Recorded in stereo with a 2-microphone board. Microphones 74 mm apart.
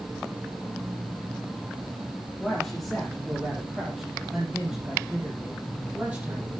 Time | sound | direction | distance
2.4 | a man speaking | 5° left (ahead or behind) | 5 m